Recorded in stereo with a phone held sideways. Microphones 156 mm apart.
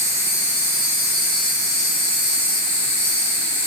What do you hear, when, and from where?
0.0 s an insect: 15° right (ahead or behind), 4.5 m